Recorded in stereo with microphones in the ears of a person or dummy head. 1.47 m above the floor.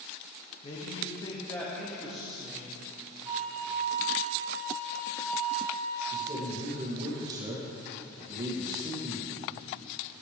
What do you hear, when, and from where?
0.6 s a man speaking: 35° left (ahead or behind), 1.8 m; by 2.8 s 10° right (ahead or behind), 2.5 m
3.2 s a flute: 70° left (ahead or behind), 2.5 m
6.1 s a man speaking: 20° right (ahead or behind), 2.0 m